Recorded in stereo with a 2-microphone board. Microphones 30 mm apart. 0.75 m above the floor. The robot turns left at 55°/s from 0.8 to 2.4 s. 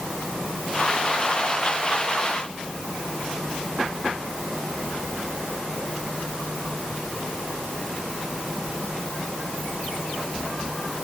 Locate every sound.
Only background noise.